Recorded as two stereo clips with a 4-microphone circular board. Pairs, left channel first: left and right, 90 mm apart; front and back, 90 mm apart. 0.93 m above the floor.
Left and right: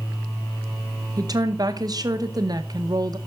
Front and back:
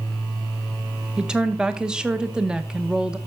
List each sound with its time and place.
1.2 s a woman speaking: 105° right, 0.8 m